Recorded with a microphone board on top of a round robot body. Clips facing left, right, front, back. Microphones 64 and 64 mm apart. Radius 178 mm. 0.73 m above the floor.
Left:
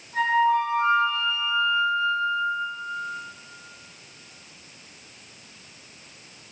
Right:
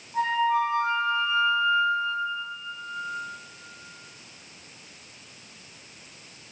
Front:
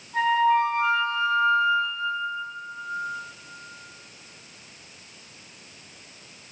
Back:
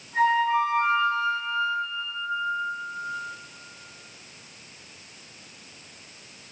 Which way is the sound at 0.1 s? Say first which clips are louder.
Left 3 dB, front 1 dB; 105° left.